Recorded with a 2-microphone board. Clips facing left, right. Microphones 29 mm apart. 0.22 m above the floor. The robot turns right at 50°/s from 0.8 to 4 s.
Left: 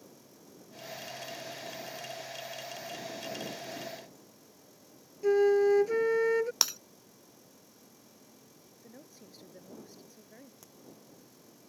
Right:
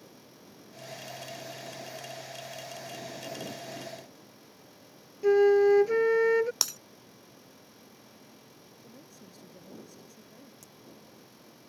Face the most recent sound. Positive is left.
turn(degrees=15)  # may be behind; listen again after turning